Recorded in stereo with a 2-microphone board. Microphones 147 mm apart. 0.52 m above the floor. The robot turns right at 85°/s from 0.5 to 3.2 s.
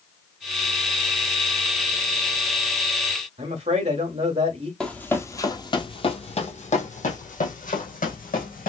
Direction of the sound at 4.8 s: 5° left (ahead or behind).